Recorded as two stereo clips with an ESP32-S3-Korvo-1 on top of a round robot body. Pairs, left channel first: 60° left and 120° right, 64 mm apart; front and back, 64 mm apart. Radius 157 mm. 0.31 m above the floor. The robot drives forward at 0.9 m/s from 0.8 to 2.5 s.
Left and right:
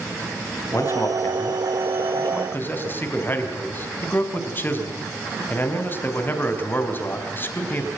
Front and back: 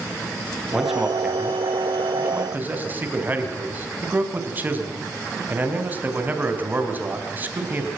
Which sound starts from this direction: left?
A man speaking, at 0.7 s.